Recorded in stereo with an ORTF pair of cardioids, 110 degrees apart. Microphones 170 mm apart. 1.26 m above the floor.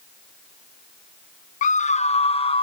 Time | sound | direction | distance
1.6 | a scream | 50° left | 0.6 m